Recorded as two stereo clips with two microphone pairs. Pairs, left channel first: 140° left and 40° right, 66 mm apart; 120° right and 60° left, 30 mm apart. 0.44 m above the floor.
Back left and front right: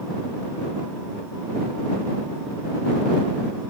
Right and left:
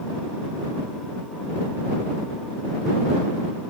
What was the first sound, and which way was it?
Only background noise.